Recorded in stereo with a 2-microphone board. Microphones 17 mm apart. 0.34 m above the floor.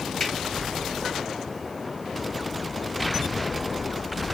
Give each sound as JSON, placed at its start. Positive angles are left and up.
{"t": 0.2, "sound": "a finger snap", "side_deg": 25, "distance_m": 1.5}